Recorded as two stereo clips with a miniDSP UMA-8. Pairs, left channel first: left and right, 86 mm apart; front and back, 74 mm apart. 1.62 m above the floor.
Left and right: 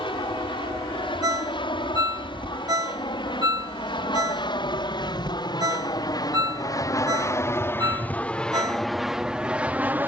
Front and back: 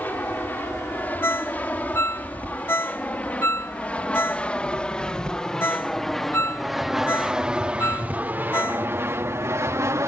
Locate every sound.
0.0 s an aircraft: 65° left; by 10.1 s 150° right
1.2 s a ringtone: 55° right